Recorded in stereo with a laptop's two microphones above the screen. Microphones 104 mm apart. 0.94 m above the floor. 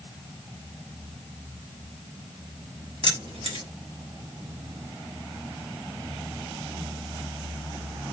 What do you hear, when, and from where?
3.0 s keys jangling: 65° right (ahead or behind), 1.7 m